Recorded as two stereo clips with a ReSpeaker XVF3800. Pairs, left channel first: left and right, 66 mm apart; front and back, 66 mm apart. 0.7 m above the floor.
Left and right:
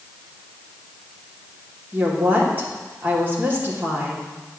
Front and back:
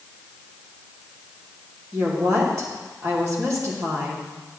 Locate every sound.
1.9 s a woman speaking: 145° right, 2 m